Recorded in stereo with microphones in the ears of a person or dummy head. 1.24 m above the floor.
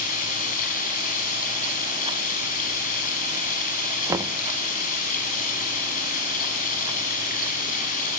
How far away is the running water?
About 7 m.